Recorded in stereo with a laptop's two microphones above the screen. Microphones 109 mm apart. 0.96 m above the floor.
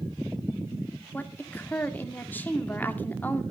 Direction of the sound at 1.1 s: 20° left (ahead or behind).